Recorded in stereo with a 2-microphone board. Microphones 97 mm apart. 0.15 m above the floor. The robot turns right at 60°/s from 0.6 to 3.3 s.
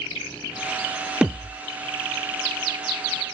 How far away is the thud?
About 0.5 m.